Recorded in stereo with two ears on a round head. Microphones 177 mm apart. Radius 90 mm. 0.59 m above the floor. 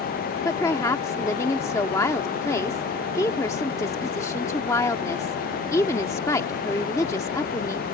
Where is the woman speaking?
15° left (ahead or behind).